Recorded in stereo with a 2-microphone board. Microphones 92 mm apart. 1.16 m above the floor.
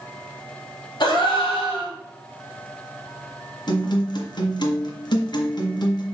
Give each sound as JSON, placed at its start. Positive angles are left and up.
{"t": 1.0, "sound": "a gasp", "side_deg": 50, "distance_m": 3.5}
{"t": 3.7, "sound": "a guitar", "side_deg": 55, "distance_m": 1.6}